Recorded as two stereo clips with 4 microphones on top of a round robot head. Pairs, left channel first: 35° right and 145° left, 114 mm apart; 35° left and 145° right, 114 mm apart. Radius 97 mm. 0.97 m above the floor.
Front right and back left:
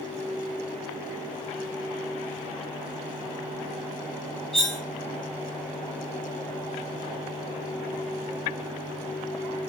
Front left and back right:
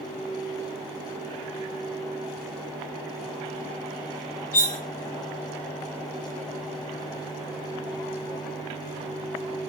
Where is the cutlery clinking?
50° left, 0.7 m.